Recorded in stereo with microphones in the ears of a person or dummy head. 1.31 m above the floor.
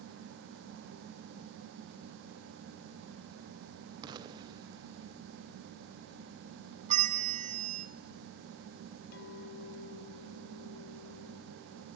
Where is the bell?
30° right (ahead or behind), 1.3 m.